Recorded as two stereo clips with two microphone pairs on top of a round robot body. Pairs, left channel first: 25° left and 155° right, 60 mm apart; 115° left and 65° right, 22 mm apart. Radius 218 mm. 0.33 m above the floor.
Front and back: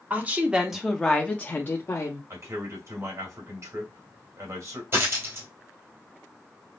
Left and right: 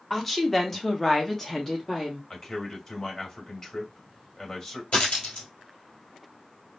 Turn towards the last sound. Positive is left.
turn(degrees=155)